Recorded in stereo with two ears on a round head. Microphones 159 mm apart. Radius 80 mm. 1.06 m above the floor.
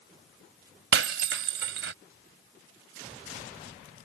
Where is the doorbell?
No doorbell in this recording.